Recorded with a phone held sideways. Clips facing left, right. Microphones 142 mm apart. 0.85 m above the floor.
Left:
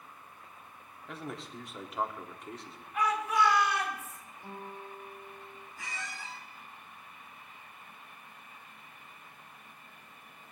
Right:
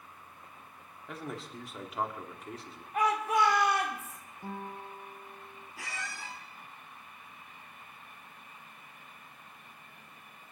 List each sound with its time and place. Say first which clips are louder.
1.1 s a man speaking: right 1 dB; centre (ahead or behind), 1.7 m
2.9 s a shout: right 1 dB; 50° right (ahead or behind), 2.5 m
4.4 s a guitar: right 3 dB; 50° right (ahead or behind), 2.5 m
5.8 s a squeak: right 1 dB; 80° right, 3.5 m